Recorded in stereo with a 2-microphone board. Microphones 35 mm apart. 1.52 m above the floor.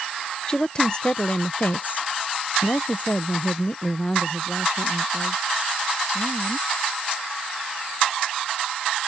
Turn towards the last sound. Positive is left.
turn(degrees=15)  # may be behind; listen again after turning